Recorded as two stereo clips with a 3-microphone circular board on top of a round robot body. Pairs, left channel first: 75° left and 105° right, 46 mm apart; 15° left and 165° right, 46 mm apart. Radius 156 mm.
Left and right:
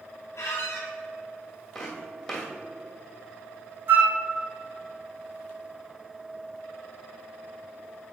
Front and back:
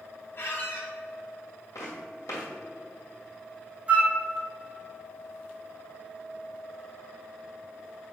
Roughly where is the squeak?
Ahead left.